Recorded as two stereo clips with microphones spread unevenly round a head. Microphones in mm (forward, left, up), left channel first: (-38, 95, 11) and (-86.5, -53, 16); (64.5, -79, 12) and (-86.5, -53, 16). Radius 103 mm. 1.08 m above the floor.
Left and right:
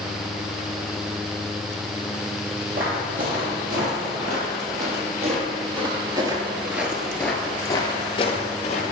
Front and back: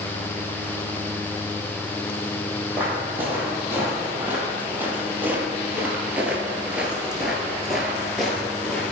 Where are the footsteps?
115° right, 2.5 m; by 8.8 s 80° left, 1.4 m.